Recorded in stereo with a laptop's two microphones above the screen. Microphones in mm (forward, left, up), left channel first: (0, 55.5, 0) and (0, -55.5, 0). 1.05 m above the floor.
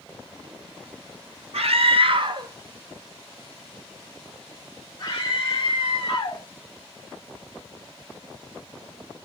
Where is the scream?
70° right (ahead or behind), 0.8 m; by 6.5 s 40° left (ahead or behind), 2.5 m.